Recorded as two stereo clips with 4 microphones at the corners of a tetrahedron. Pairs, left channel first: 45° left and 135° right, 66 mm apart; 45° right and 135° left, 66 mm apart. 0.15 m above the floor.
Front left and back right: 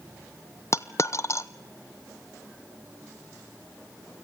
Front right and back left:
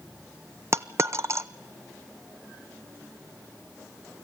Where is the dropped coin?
90° left, 0.6 m.